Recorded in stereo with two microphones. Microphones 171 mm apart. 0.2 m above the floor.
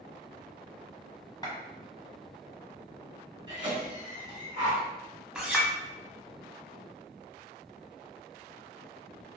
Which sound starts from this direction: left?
A clap, at 1.4 s.